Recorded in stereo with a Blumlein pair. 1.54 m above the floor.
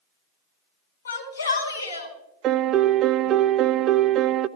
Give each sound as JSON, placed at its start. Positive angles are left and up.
{"t": 1.1, "sound": "a shout", "azimuth_deg": 65, "distance_m": 6.5}
{"t": 2.4, "sound": "a piano", "azimuth_deg": -30, "distance_m": 0.6}